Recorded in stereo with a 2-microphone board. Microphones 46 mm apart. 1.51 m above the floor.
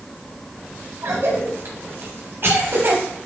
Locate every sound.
1.0 s a cough: 60° right (ahead or behind), 2 m